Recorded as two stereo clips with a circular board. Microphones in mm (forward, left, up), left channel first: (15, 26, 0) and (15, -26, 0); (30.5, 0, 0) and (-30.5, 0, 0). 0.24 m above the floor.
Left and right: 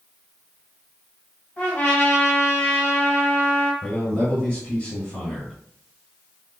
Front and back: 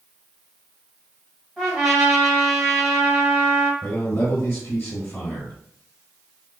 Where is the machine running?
I don't hear a machine running.